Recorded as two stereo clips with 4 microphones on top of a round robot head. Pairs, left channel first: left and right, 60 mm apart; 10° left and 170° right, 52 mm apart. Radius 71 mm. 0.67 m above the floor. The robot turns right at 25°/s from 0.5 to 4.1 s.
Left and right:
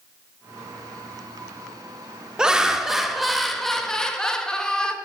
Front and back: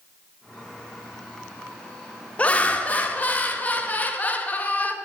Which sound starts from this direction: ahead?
Laughter, at 2.4 s.